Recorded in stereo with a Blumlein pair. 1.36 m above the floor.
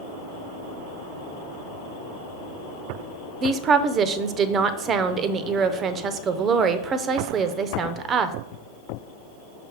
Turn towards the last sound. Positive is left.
turn(degrees=-25)